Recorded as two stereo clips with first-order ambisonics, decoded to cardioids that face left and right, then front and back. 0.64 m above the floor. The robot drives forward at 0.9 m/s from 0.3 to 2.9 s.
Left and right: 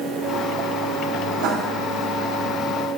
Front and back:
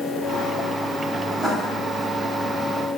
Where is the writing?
105° right, 3 m.